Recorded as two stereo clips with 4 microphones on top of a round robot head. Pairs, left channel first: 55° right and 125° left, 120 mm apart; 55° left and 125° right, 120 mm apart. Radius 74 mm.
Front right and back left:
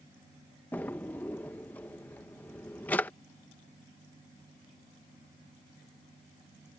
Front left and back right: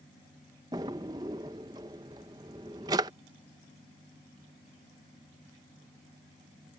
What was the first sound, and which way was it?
A drawer, 115° right.